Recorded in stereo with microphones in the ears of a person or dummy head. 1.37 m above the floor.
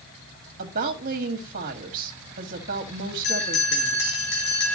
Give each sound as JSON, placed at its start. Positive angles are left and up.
{"t": 0.6, "sound": "a woman speaking", "side_deg": -50, "distance_m": 1.7}
{"t": 3.2, "sound": "a bell", "side_deg": 70, "distance_m": 3.0}